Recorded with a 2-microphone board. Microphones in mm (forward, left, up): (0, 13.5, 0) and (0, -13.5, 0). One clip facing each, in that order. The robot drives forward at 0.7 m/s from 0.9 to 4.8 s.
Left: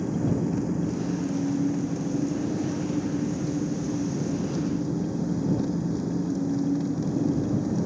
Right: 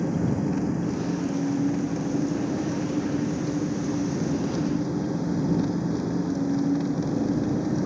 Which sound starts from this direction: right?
An engine running, at 0.0 s.